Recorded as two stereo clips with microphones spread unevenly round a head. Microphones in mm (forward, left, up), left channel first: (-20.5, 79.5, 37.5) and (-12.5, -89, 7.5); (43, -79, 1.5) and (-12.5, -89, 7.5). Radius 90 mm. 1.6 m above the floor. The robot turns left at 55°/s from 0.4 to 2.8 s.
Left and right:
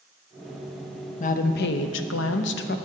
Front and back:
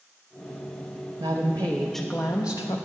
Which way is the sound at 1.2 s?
140° left.